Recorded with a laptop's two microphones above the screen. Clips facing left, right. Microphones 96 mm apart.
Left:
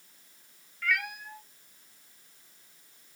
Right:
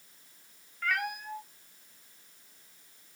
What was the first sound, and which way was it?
A cat meowing, 40° right (ahead or behind).